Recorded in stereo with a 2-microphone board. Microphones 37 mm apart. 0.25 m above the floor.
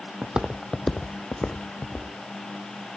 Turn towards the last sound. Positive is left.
turn(degrees=50)  # may be behind; listen again after turning